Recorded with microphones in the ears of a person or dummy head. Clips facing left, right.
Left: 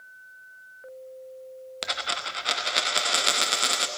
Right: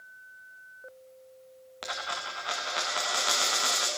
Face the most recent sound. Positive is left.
turn(degrees=25)  # may be behind; listen again after turning